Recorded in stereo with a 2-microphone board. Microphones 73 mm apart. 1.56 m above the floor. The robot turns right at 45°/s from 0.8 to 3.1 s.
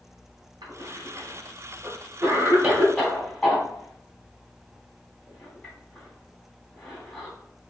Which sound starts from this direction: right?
A cough, at 0.6 s.